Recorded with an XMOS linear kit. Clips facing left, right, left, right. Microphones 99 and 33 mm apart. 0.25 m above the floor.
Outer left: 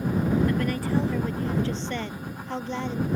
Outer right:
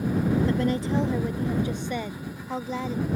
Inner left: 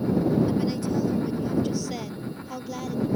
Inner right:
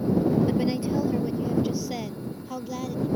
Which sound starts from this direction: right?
A woman speaking, at 0.5 s.